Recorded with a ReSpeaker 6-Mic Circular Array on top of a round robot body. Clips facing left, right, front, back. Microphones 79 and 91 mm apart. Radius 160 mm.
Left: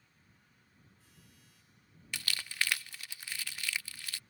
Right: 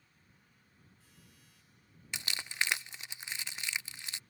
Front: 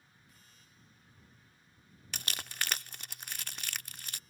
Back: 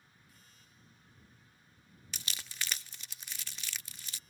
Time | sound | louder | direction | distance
2.1 | crumpling | even, front 4 dB | 25° right | ?